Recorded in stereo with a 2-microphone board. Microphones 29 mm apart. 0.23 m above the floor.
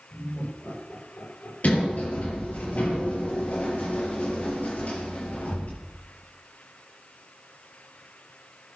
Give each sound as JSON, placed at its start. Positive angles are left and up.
{"t": 0.1, "sound": "laughter", "side_deg": 80, "distance_m": 8.5}
{"t": 1.6, "sound": "a sliding door", "side_deg": 55, "distance_m": 6.0}